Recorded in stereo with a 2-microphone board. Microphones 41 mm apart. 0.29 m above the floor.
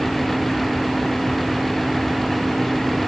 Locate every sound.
Only background noise.